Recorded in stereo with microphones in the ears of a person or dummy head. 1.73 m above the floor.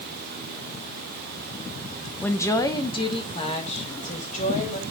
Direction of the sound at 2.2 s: 10° left (ahead or behind).